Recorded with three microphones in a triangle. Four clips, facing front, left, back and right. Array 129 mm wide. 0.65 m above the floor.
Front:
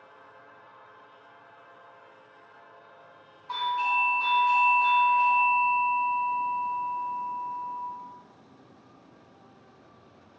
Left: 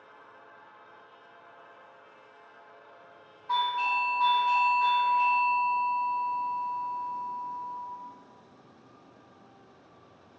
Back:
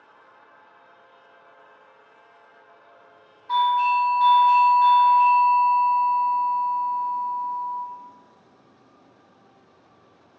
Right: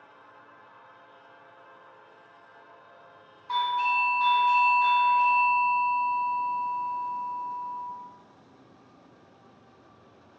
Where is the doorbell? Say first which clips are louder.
Right 2 dB, back 8 dB; 120° left, 1.7 m.